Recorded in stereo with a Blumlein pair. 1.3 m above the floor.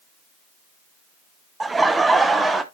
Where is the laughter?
10° right, 0.6 m; by 2.6 s 5° right, 1.4 m.